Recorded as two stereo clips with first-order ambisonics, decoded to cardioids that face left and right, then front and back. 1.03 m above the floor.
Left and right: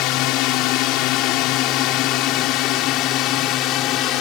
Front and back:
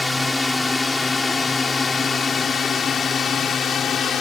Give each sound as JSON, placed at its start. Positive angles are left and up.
{"t": 0.0, "sound": "a drone", "azimuth_deg": 80}